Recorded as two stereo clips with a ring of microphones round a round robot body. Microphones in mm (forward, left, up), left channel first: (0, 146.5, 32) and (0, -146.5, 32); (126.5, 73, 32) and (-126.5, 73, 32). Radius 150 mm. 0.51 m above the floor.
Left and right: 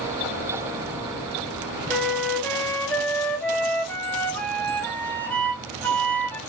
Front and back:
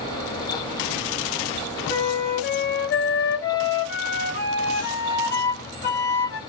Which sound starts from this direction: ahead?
A flute, at 1.9 s.